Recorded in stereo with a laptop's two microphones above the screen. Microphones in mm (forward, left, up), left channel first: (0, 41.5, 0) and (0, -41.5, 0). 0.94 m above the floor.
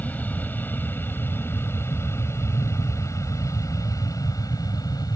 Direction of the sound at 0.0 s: 20° left (ahead or behind).